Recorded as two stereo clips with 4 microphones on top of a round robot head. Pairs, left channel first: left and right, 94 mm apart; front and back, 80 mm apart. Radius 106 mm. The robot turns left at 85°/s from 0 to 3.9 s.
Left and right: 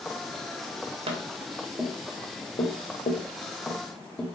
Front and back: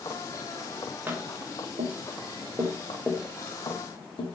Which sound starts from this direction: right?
Tapping, at 1.1 s.